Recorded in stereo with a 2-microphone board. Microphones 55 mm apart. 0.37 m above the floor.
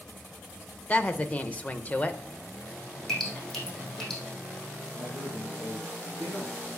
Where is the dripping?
10° left (ahead or behind), 4 m.